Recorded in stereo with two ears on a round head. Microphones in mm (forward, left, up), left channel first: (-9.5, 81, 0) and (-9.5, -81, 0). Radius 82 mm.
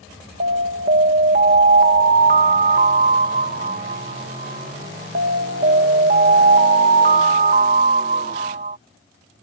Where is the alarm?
45° right (ahead or behind).